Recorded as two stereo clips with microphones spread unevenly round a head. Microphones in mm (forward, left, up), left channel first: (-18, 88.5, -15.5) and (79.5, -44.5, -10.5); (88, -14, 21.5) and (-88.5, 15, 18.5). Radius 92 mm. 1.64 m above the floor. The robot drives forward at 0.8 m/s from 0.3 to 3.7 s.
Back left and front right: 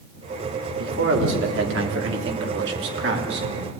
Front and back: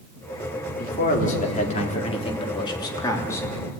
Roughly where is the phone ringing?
I don't hear a phone ringing.